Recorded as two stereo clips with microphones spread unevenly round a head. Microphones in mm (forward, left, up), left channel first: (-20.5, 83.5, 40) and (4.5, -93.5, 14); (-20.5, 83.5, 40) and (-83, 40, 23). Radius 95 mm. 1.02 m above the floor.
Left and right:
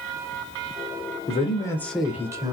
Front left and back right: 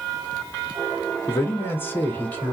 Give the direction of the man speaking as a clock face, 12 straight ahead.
9 o'clock.